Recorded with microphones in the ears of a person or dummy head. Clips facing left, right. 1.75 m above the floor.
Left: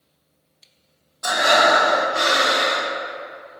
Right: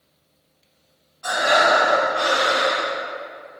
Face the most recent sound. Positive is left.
turn(degrees=65)  # may be behind; listen again after turning